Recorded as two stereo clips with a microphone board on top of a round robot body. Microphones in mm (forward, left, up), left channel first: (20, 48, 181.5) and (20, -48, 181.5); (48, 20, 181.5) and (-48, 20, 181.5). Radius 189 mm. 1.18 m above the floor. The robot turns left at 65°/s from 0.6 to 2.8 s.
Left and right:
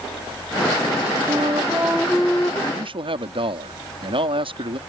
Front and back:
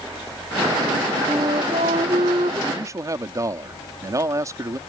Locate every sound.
1.3 s a flute: 125° right; by 2.6 s 145° left
2.7 s a man speaking: 115° right; by 4.8 s 120° right